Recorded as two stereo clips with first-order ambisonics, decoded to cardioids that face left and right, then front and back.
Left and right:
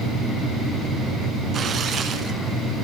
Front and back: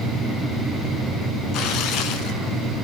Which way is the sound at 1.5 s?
35° right.